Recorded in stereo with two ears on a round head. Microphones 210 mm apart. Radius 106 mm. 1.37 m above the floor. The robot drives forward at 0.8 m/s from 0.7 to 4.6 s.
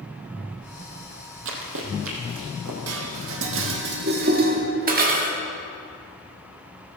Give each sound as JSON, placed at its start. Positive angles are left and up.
{"t": 1.4, "sound": "running footsteps", "side_deg": -60, "distance_m": 2.5}
{"t": 2.9, "sound": "dishes clattering", "side_deg": -70, "distance_m": 1.3}